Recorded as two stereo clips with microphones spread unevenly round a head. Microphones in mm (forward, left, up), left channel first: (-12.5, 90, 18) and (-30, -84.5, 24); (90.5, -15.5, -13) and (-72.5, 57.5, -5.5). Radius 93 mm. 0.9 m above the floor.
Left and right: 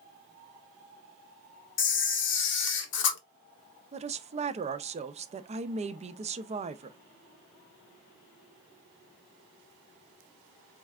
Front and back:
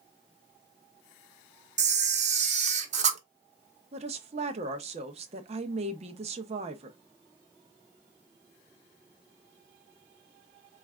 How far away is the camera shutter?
About 0.9 m.